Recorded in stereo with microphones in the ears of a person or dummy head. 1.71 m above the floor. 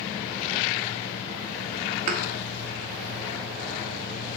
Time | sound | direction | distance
2.1 | a thud | 45° right (ahead or behind) | 1.9 m